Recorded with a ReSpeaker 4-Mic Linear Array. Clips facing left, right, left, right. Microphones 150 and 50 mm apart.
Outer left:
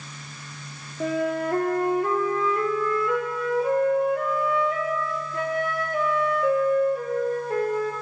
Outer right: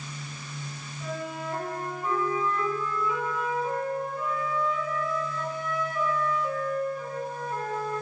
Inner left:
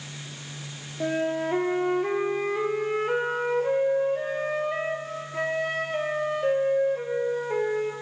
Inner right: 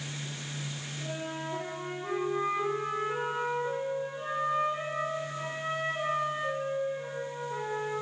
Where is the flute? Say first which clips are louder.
Outer left 10 dB, inner left 12 dB; 85° left, 1.3 m.